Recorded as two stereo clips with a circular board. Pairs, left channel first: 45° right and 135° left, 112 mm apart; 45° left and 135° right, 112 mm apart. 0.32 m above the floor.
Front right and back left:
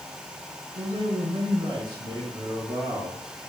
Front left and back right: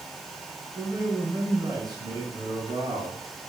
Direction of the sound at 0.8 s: 165° left.